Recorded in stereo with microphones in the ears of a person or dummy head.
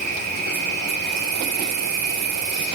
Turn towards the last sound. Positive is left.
turn(degrees=-55)  # may be behind; listen again after turning